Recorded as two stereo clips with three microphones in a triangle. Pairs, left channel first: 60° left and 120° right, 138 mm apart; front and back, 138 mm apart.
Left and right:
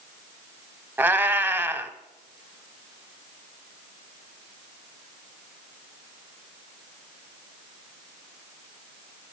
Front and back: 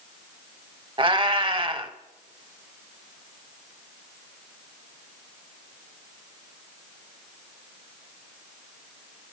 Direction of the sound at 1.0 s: 175° left.